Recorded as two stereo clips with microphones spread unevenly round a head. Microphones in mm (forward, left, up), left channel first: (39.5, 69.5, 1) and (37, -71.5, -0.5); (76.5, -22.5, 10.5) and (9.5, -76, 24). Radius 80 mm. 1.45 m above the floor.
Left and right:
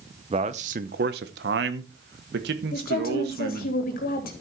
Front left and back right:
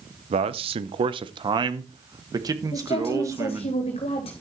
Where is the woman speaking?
70° left, 3.5 m.